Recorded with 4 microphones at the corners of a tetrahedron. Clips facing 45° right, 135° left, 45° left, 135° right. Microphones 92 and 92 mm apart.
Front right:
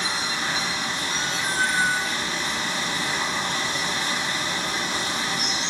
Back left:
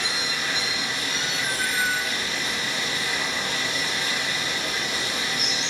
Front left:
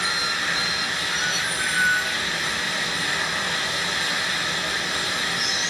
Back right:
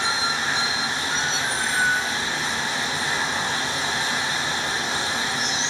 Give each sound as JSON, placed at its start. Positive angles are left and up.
{"t": 0.0, "sound": "running water", "azimuth_deg": -80, "distance_m": 1.6}